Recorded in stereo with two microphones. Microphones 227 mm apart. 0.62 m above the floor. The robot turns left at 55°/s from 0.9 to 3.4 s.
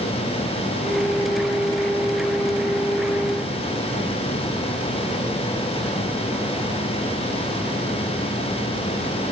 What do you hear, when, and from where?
Only background noise.